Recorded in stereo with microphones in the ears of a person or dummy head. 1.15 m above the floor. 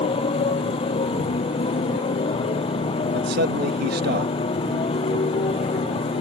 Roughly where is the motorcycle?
Left.